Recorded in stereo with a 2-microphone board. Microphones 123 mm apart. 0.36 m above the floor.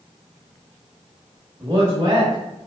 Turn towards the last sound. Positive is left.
turn(degrees=-30)  # may be behind; listen again after turning